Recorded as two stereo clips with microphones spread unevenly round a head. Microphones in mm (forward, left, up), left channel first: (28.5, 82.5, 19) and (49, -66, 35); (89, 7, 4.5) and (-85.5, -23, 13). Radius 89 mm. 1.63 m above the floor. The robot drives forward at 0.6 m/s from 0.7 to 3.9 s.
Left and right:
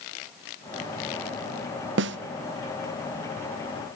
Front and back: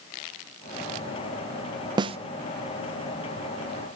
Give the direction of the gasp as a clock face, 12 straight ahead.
No gasp in this recording.